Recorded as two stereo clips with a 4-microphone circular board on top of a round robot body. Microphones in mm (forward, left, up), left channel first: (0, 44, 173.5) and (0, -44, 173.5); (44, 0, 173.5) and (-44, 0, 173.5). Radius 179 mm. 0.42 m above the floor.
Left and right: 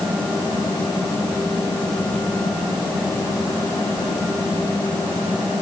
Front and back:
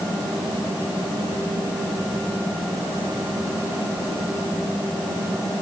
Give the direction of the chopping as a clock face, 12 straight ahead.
No chopping in this recording.